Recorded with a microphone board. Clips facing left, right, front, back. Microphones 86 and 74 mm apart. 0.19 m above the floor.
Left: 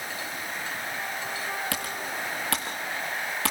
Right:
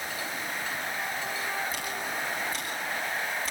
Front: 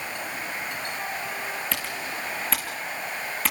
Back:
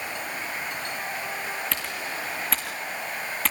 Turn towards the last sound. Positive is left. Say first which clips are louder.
# left 1 dB, even
turn(degrees=90)